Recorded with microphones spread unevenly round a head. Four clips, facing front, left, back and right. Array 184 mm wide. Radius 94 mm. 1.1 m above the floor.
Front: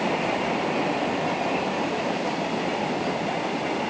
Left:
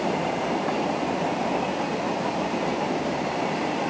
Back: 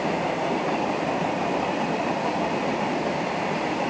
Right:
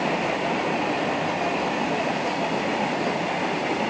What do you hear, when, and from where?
Only background noise.